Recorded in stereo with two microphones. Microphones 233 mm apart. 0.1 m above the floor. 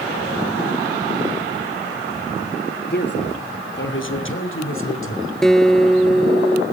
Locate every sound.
2.9 s a man speaking: 45° left (ahead or behind), 2.5 m; by 5.3 s 65° left (ahead or behind), 4.5 m
5.4 s a guitar: centre (ahead or behind), 0.6 m